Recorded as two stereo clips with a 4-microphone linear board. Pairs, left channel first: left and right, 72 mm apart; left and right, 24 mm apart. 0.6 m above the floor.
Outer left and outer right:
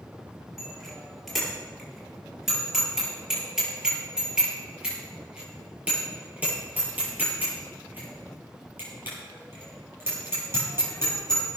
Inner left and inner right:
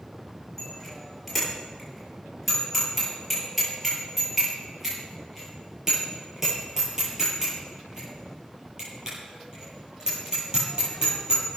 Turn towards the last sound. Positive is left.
turn(degrees=-35)  # may be behind; listen again after turning